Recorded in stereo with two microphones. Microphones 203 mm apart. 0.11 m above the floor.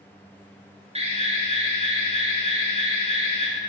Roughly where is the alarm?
Right.